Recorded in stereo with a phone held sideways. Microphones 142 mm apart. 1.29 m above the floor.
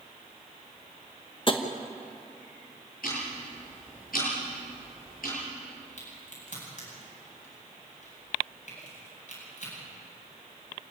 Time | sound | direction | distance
1.5 | tapping | 35° left (ahead or behind) | 1.3 m
3.0 | ticking | 85° left | 8.5 m
6.0 | a crack | 65° left (ahead or behind) | 8.5 m